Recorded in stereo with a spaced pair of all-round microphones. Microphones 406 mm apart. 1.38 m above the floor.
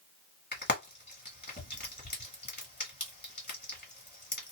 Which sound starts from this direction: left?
Frying, at 0.5 s.